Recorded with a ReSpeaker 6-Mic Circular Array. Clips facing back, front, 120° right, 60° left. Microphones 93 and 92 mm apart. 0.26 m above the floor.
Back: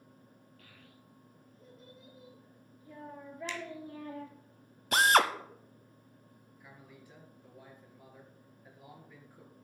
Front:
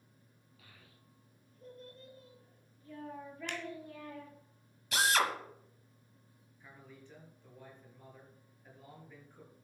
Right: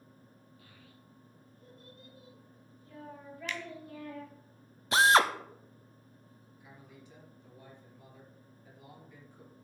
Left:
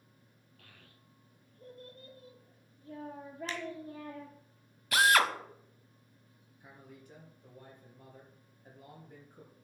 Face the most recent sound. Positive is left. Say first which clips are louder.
# even, left 2 dB
turn(degrees=100)